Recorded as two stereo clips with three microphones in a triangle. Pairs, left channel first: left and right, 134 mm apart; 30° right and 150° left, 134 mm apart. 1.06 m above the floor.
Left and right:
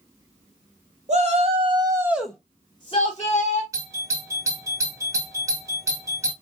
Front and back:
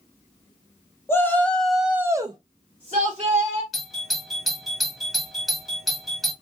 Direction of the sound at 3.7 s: 120° right.